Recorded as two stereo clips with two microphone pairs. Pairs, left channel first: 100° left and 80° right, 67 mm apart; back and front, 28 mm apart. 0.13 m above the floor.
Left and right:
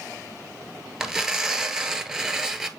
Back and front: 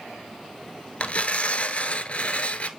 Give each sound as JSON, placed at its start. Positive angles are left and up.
{"t": 1.0, "sound": "tearing paper", "azimuth_deg": -160, "distance_m": 0.7}